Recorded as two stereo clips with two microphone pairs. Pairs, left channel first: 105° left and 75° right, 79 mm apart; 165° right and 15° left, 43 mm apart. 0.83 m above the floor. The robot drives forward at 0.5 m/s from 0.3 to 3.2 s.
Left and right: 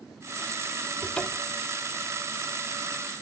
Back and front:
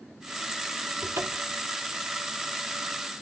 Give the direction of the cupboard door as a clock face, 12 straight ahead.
11 o'clock.